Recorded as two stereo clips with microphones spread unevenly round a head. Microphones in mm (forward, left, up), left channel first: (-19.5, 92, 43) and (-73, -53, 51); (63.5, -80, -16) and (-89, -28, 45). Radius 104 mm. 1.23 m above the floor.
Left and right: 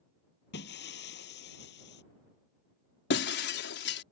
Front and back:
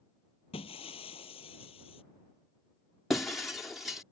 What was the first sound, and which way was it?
Breaking glass, 45° left.